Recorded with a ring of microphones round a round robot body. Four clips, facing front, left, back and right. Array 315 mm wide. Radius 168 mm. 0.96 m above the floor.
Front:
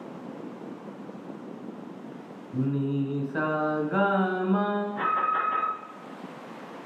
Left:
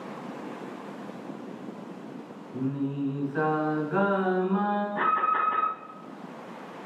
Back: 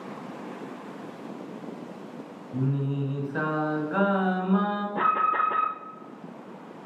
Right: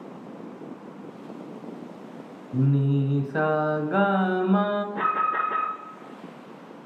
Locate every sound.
2.5 s singing: 90° right, 1.4 m
5.0 s an alarm: 155° right, 3.5 m